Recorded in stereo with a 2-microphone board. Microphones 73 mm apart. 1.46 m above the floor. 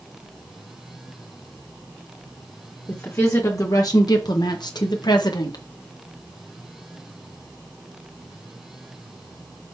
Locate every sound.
2.9 s a woman speaking: 35° left (ahead or behind), 1.6 m; by 5.6 s 75° left (ahead or behind), 1.7 m